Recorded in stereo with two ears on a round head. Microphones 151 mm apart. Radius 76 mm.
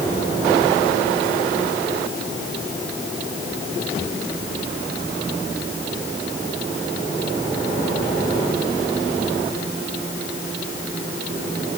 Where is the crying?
I don't hear crying.